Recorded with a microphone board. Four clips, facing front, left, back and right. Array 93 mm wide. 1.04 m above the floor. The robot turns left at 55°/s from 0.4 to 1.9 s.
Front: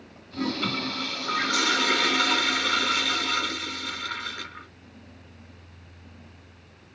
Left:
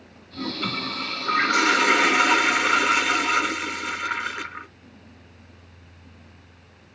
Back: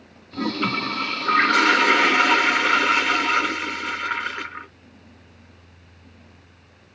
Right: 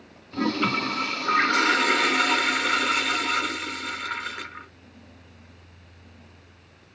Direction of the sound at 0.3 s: 125° right.